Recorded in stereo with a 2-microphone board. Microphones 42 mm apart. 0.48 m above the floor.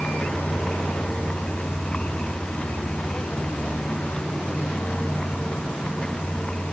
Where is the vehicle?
25° left (ahead or behind).